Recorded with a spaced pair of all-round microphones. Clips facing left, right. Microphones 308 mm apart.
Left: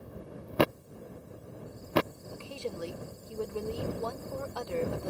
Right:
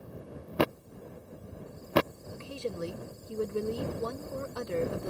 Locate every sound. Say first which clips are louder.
2.3 s a woman speaking: right 2 dB; 20° right (ahead or behind)